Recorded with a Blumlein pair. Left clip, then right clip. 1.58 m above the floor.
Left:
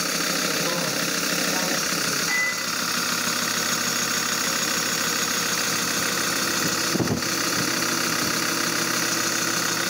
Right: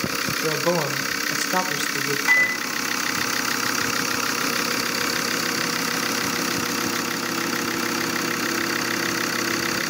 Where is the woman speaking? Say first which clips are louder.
Right 2 dB; 30° right, 1.0 m.